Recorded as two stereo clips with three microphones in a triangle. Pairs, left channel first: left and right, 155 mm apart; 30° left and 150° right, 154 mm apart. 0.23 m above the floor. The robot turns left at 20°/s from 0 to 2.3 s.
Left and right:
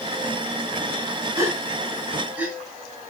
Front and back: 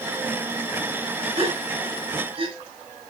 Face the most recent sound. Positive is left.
turn(degrees=-165)